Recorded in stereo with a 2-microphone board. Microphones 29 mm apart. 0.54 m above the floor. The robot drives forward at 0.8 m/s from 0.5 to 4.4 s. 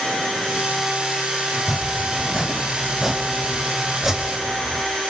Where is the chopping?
5° right (ahead or behind), 5 m.